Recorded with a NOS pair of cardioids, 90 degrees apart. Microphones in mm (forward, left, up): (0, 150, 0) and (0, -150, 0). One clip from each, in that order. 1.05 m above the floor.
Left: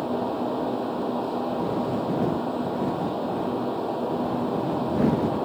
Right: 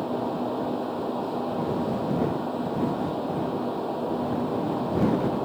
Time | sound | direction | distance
0.0 | a fan | 15° left | ?